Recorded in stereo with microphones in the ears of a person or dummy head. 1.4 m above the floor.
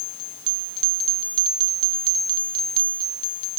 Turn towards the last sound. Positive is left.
No sound to turn to.